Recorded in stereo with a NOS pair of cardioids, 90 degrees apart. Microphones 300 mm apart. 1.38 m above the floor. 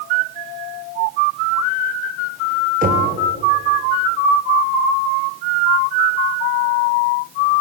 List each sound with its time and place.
2.8 s knocking: 30° right, 4.5 m